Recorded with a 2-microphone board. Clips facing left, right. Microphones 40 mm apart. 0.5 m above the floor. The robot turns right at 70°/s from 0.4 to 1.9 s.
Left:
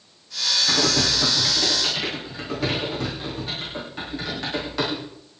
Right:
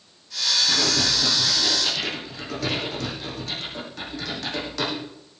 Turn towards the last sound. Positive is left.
turn(degrees=25)  # may be behind; listen again after turning